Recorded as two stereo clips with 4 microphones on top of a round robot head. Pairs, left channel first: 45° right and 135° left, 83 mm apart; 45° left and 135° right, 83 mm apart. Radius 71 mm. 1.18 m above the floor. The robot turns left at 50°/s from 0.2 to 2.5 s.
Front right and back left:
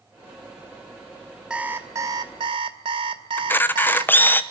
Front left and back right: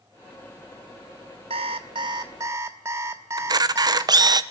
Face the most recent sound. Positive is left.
turn(degrees=-110)